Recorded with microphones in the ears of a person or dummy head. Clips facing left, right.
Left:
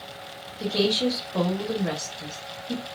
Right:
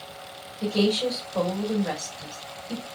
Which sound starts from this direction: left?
A woman speaking, at 0.6 s.